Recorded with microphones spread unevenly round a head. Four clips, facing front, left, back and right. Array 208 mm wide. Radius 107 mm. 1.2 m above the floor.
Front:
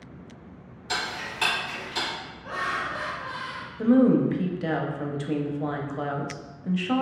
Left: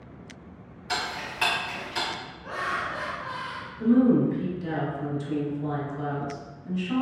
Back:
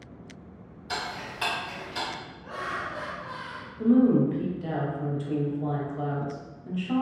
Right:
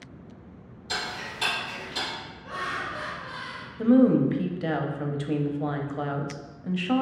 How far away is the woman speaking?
About 0.5 m.